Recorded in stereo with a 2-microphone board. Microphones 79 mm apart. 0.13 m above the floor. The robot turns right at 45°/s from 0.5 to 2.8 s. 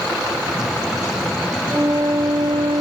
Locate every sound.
1.7 s a flute: 145° right, 0.6 m; by 2.8 s 95° right, 0.6 m